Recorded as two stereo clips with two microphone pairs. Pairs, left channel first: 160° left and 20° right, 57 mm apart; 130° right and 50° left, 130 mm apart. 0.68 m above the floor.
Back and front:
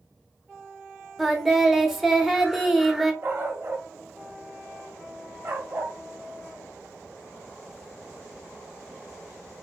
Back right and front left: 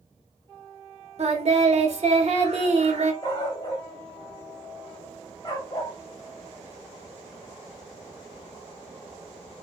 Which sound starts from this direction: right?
A dog barking, at 3.2 s.